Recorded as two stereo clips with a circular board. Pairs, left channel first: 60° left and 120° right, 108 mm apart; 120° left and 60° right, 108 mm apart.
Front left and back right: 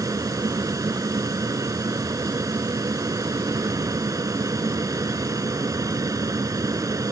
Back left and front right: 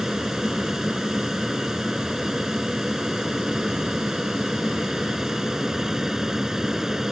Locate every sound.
0.0 s an aircraft: 145° right